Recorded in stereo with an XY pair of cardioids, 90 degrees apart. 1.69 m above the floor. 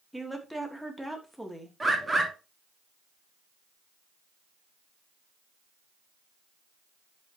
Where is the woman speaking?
Straight ahead, 2.5 m.